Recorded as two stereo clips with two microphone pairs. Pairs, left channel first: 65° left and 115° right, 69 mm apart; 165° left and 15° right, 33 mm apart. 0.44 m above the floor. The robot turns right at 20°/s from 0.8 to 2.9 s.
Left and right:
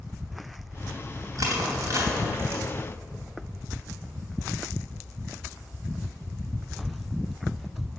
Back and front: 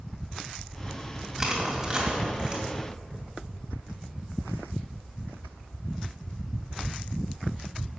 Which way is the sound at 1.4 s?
90° right.